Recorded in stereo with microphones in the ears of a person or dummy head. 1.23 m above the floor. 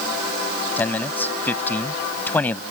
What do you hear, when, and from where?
0.8 s a man speaking: 10° left (ahead or behind)